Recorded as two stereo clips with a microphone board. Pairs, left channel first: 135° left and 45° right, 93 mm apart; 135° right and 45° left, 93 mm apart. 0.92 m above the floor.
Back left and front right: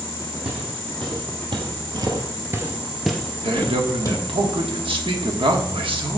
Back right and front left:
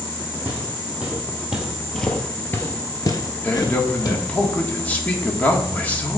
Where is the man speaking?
65° right, 1.5 m.